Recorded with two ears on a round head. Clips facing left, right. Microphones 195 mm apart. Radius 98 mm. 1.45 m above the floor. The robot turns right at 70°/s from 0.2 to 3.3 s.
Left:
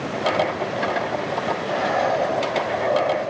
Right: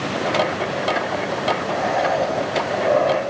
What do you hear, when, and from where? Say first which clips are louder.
1.6 s breathing: right 1 dB; 155° left, 4 m; by 3.2 s 95° right, 4 m